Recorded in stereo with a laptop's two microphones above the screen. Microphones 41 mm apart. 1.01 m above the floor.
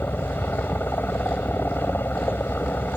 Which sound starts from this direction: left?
A helicopter, at 0.0 s.